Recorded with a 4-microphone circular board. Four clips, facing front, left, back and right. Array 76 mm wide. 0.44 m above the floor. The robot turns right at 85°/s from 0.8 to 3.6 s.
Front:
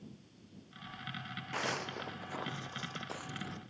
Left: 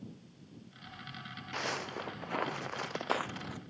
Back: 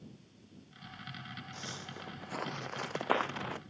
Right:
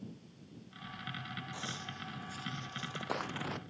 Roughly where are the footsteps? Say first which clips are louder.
Left 6 dB, front 12 dB; ahead left.